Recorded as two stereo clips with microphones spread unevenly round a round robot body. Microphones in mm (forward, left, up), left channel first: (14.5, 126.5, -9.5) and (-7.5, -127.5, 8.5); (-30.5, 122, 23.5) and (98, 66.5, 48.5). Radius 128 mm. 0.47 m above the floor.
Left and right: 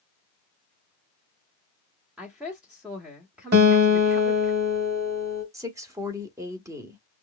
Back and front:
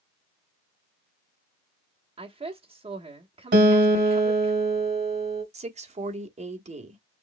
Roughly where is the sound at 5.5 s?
Ahead.